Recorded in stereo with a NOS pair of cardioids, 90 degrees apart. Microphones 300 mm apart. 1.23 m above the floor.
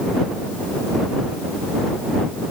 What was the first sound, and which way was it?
Only background noise.